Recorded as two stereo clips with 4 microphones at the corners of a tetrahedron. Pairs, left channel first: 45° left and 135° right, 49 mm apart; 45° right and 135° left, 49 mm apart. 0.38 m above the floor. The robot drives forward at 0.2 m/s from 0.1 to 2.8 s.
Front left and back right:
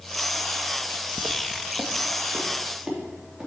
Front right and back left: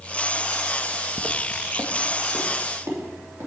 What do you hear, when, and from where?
1.2 s footsteps: 150° right, 0.6 m; by 3.5 s 150° left, 3.5 m